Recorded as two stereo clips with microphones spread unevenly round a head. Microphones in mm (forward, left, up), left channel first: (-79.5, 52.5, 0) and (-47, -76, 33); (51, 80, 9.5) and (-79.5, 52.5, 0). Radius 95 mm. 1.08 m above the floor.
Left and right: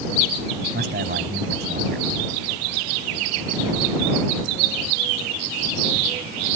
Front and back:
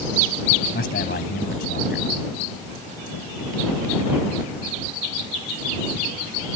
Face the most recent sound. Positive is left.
turn(degrees=-30)